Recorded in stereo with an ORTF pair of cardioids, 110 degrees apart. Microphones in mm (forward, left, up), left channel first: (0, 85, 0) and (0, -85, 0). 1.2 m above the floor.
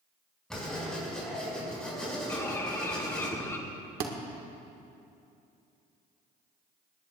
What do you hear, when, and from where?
0.5 s writing: 5° left, 5.5 m
2.3 s a bird: 15° left, 1.6 m
4.0 s a thud: 70° right, 1.6 m